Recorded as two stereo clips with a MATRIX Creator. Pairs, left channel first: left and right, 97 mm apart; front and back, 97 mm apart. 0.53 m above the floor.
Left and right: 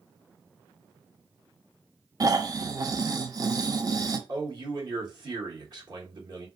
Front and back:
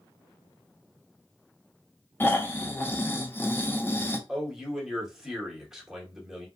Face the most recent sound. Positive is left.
turn(degrees=-100)